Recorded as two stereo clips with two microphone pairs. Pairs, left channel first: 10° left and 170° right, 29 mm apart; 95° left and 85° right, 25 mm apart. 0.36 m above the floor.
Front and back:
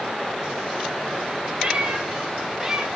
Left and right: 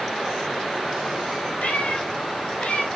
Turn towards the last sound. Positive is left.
turn(degrees=115)